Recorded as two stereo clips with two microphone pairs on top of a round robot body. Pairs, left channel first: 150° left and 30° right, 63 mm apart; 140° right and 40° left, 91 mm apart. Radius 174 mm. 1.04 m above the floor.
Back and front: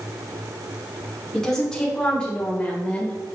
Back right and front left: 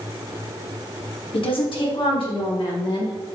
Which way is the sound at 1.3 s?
125° right.